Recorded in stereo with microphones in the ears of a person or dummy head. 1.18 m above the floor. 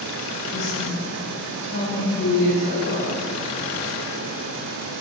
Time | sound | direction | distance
0.5 | a woman speaking | 55° left (ahead or behind) | 5.5 m